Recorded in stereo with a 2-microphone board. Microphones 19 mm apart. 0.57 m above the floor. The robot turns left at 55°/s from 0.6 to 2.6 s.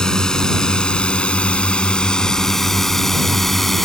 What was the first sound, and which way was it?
A drone, 40° left (ahead or behind).